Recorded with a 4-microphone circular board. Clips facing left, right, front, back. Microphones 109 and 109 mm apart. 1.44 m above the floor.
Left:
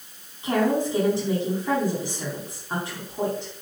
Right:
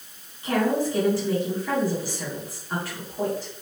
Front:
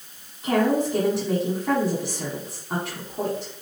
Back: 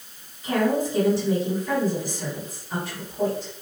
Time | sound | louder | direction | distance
0.4 | a woman speaking | left 1 dB, front 2 dB | 25° left | 4 m